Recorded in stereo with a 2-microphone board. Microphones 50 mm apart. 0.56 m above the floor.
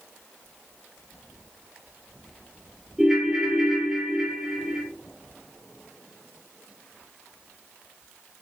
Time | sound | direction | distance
3.0 | a ringtone | 10° right (ahead or behind) | 0.7 m